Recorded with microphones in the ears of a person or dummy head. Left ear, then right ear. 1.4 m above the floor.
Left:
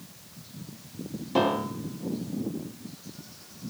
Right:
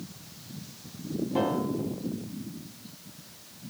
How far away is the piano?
About 0.6 m.